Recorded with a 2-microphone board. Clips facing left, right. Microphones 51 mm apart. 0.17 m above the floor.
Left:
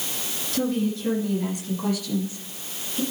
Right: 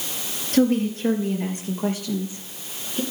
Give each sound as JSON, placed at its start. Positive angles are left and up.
{"t": 0.5, "sound": "a woman speaking", "side_deg": -45, "distance_m": 3.0}